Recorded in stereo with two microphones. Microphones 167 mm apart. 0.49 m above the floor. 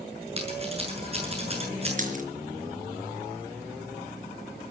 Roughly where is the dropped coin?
Right.